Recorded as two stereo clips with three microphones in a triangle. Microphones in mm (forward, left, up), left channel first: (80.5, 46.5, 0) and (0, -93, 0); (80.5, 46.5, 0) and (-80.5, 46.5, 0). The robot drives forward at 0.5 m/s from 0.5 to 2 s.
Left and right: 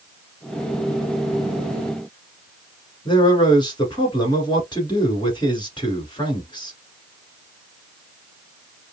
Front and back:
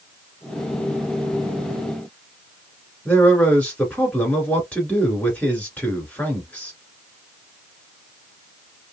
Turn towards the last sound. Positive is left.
turn(degrees=75)